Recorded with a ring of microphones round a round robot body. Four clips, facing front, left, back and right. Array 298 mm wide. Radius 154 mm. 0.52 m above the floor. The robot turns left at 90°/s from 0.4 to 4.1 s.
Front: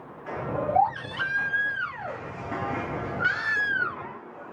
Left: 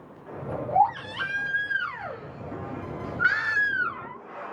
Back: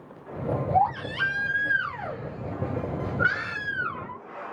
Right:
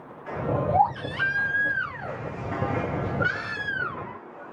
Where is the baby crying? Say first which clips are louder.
Left 3 dB, even; 95° right, 4 m; by 4.4 s 40° right, 4 m.